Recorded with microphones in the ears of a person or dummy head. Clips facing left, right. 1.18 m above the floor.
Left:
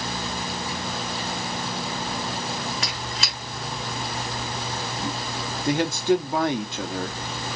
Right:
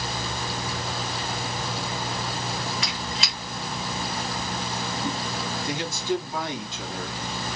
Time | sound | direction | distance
2.8 | a squeak | 45° left (ahead or behind) | 0.7 m
5.7 | a man speaking | 45° left (ahead or behind) | 0.5 m